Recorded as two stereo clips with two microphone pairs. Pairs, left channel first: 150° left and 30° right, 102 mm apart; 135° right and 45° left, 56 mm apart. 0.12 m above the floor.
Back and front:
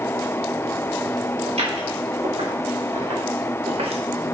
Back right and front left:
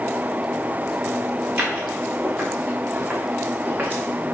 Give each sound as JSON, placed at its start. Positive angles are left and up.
{"t": 1.5, "sound": "footsteps", "azimuth_deg": -20, "distance_m": 4.5}